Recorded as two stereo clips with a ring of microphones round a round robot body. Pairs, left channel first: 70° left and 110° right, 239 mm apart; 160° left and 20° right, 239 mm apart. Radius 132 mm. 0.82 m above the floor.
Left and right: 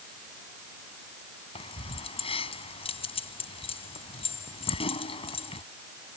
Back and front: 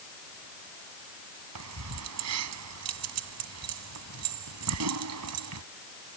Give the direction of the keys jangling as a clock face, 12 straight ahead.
12 o'clock.